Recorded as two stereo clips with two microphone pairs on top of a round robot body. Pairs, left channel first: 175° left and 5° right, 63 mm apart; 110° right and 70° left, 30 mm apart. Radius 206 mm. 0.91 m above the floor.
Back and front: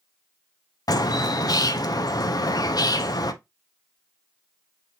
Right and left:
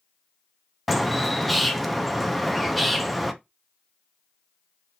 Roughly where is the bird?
Behind.